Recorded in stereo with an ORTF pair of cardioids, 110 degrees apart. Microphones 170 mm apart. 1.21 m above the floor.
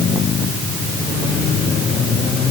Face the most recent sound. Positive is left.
No sound to turn to.